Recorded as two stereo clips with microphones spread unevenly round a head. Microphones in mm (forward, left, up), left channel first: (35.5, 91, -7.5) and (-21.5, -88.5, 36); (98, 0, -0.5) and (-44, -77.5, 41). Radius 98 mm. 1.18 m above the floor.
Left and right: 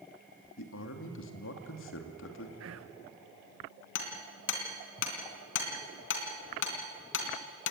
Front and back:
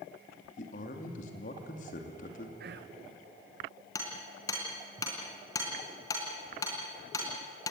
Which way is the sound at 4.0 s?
105° left.